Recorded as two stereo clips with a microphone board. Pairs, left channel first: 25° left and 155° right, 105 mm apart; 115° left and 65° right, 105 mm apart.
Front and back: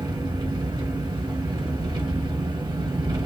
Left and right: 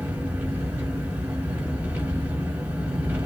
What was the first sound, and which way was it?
An engine running, 135° right.